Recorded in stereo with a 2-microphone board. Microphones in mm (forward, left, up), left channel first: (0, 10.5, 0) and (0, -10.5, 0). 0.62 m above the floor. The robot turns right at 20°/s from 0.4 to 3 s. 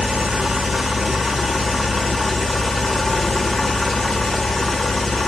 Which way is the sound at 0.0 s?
40° right.